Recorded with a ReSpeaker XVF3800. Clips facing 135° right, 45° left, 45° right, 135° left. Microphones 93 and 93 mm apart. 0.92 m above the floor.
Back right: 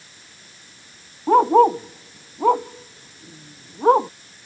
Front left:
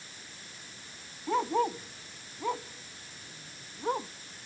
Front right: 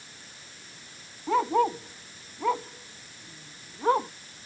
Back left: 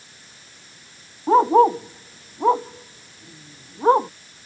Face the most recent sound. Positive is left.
turn(degrees=-165)